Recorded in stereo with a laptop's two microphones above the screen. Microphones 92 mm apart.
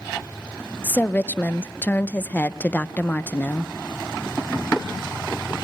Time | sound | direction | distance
0.8 | a woman speaking | 20° left (ahead or behind) | 0.6 m